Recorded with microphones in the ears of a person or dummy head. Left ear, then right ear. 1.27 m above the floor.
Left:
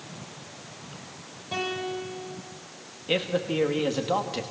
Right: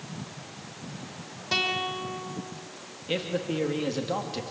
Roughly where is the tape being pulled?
No tape being pulled in this recording.